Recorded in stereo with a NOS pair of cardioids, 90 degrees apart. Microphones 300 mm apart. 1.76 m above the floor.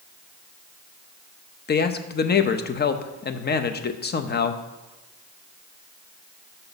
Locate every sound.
1.7 s a man speaking: 35° left, 0.7 m